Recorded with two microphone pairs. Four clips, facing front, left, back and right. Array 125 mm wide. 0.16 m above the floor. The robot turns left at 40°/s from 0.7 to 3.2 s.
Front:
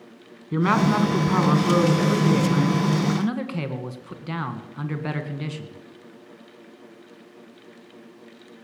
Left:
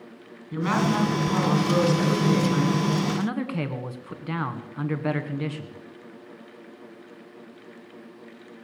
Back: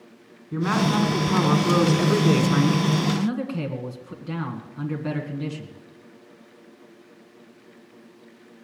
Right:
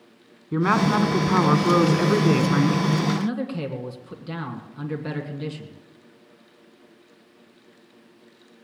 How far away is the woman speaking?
About 1.9 m.